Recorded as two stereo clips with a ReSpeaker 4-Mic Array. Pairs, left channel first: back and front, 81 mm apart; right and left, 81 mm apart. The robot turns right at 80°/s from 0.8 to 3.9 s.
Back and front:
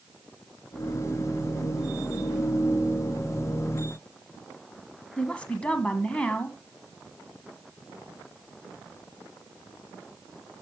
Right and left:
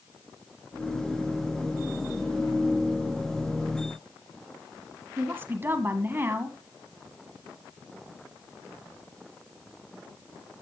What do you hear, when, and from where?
5.2 s a woman speaking: 115° left, 1.3 m